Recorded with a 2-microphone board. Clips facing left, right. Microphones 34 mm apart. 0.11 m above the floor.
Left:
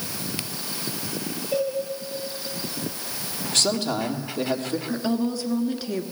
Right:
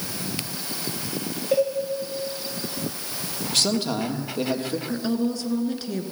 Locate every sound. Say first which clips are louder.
1.5 s a cowbell: right 4 dB; 75° right (ahead or behind), 7.5 m
3.5 s a man speaking: even; 5° right (ahead or behind), 2.5 m
4.9 s a woman speaking: even; 5° left (ahead or behind), 1.5 m